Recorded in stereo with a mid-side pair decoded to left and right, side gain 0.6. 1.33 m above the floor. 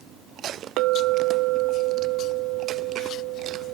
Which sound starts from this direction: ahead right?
A clink, at 0.8 s.